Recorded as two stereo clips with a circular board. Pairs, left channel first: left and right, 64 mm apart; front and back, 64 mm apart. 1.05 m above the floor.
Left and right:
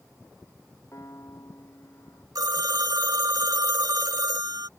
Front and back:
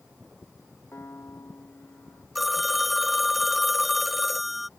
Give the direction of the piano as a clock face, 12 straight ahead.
10 o'clock.